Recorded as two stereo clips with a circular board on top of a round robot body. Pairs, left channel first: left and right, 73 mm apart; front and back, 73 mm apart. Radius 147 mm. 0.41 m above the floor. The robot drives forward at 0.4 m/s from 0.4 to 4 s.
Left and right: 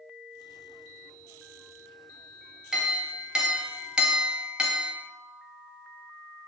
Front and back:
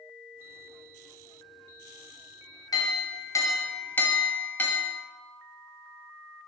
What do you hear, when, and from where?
2.7 s a clink: 10° right, 1.0 m; by 5.0 s 30° right, 0.7 m